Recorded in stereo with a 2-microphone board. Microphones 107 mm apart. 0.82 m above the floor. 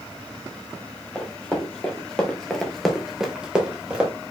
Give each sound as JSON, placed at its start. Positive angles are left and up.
{"t": 1.1, "sound": "running footsteps", "side_deg": 10, "distance_m": 1.9}